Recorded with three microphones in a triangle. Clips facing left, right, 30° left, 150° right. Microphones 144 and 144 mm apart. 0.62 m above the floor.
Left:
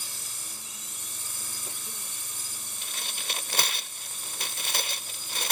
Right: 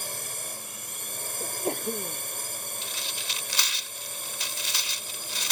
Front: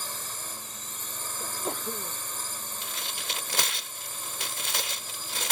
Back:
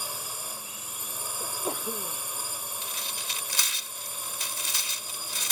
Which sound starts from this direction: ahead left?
Tearing paper, at 2.8 s.